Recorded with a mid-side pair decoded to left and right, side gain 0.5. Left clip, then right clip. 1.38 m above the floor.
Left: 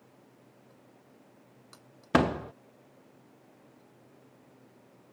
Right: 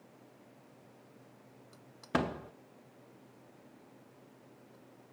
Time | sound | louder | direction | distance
2.1 | a door slam | left 8 dB | 50° left | ?